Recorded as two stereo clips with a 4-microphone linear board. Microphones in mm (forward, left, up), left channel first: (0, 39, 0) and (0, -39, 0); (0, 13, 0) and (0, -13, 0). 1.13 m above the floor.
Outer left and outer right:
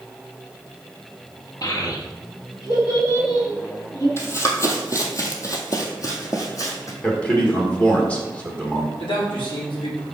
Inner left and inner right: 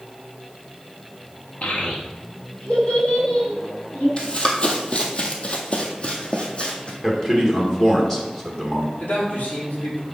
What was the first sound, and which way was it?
A child speaking, 45° left (ahead or behind).